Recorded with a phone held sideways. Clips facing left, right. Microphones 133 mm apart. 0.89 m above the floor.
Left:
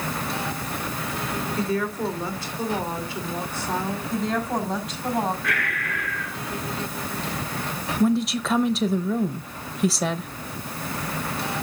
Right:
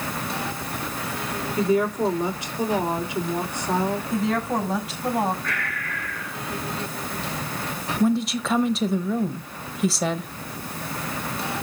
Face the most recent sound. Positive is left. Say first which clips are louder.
# even
turn(degrees=0)  # may be behind; listen again after turning